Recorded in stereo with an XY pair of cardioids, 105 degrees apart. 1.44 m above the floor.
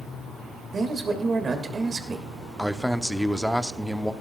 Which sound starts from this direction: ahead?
A man speaking, at 2.6 s.